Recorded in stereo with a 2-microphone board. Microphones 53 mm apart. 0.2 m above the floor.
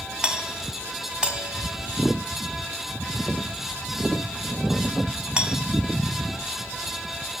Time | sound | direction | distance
0.2 | a doorbell | 15° right (ahead or behind) | 1.6 m